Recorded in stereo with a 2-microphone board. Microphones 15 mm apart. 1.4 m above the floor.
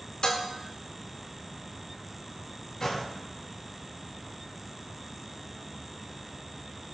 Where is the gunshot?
40° left (ahead or behind), 3 m.